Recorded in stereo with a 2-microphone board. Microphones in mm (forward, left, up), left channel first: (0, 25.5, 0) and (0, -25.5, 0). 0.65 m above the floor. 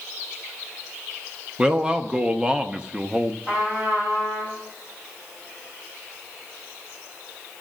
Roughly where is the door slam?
I don't hear a door slam.